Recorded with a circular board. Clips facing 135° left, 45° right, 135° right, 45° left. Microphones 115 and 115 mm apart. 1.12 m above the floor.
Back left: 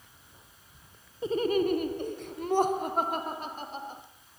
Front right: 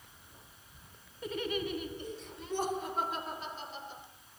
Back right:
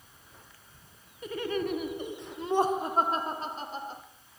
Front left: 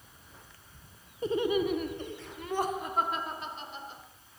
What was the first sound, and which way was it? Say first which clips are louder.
Laughter: back left 9 dB, front left 4 dB; 85° left.